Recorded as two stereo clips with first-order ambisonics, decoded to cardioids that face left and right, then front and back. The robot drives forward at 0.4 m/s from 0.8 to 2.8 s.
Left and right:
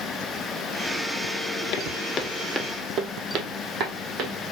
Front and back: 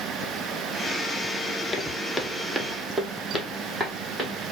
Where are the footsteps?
75° left, 0.8 m; by 4.3 s 95° right, 1.6 m.